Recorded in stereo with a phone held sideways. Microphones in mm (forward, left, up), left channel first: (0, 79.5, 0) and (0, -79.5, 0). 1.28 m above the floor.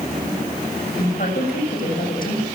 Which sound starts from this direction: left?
A woman speaking, at 1.0 s.